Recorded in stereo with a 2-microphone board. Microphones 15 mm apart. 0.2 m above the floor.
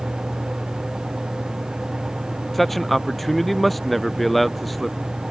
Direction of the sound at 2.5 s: 15° left (ahead or behind).